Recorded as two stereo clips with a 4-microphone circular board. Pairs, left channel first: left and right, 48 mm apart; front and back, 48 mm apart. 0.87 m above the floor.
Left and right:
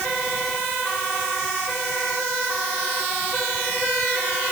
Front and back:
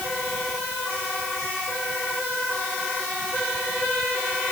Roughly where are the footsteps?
I don't hear footsteps.